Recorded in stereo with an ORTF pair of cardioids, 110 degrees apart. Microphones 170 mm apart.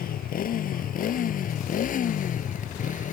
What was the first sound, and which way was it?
A motorcycle, 55° left.